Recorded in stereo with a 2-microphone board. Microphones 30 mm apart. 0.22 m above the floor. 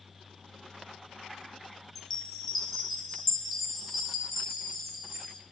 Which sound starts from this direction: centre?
A chime, at 1.9 s.